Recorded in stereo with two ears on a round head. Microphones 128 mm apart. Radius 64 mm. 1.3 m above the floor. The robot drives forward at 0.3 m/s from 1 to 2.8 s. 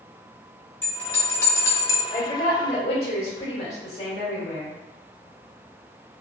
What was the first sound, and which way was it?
A bell, 15° left (ahead or behind).